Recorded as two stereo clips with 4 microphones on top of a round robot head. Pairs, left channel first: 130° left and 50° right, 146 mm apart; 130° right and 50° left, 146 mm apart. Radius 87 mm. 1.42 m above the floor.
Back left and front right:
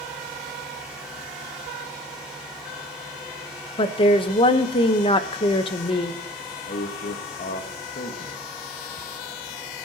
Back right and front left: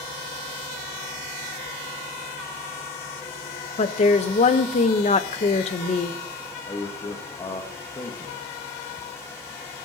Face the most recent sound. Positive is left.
turn(degrees=165)